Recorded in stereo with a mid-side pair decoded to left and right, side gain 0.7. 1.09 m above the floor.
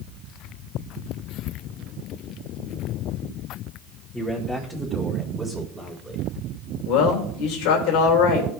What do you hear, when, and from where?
4.1 s a man speaking: 15° left, 2.5 m; by 6.2 s 5° right, 3.5 m
6.8 s a man speaking: 65° left, 4 m